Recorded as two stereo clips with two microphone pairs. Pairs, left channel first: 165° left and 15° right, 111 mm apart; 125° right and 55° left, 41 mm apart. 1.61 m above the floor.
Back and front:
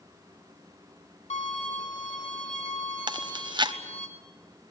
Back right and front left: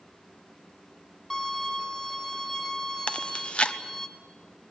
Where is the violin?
155° left, 3.5 m.